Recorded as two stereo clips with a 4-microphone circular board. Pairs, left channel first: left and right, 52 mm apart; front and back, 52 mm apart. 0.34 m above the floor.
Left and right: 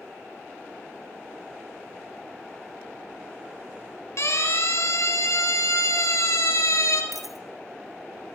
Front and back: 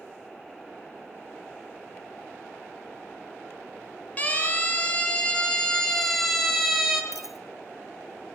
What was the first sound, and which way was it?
A siren, 60° left.